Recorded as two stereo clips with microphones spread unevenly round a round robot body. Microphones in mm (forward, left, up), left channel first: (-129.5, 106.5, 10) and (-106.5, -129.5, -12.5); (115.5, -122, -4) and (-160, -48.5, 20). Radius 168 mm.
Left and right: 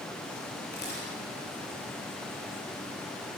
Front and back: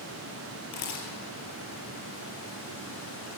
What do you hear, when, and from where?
0.7 s a camera shutter: 35° left, 4.5 m